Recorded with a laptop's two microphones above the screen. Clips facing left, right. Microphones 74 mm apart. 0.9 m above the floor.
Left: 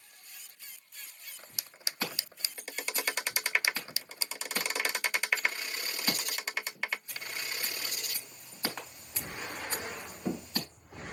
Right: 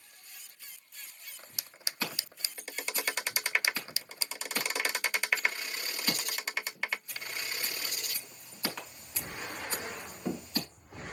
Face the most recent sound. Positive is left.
turn(degrees=25)  # may be behind; listen again after turning